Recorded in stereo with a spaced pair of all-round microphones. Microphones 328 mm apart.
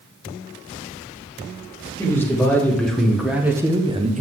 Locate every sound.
2.0 s a man speaking: 10° left (ahead or behind), 1.9 m; by 4.2 s 25° right (ahead or behind), 0.7 m